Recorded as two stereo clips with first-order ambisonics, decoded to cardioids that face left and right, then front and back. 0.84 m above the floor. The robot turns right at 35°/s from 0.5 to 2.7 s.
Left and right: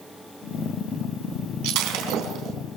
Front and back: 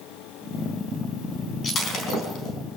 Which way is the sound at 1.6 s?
70° right.